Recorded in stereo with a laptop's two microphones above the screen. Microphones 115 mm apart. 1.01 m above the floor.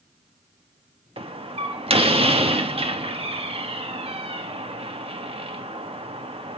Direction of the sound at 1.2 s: 55° right (ahead or behind).